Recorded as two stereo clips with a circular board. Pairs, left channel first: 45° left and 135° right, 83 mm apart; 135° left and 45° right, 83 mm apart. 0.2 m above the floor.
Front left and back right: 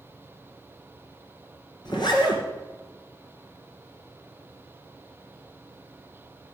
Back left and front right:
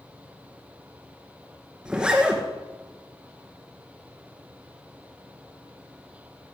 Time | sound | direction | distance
1.9 | a zipper | 35° left | 2.5 m